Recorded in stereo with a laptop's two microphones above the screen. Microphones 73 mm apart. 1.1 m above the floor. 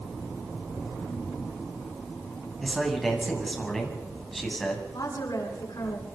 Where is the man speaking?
5° left (ahead or behind), 9 m.